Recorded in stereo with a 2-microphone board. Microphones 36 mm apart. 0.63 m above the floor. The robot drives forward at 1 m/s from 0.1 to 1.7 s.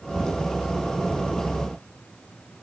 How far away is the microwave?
No microwave in this recording.